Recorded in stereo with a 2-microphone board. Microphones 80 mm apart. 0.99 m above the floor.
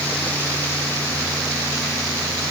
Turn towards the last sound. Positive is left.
No sound to turn to.